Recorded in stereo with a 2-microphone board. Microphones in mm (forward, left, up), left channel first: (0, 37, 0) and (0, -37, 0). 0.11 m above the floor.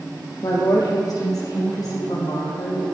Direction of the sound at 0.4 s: 55° left (ahead or behind).